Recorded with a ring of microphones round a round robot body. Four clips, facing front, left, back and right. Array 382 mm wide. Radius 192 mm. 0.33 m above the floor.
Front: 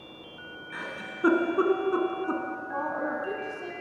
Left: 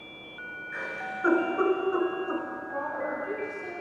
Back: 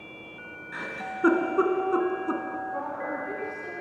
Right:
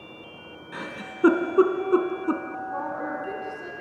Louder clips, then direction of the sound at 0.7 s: Left 1 dB, back 4 dB; 90° right.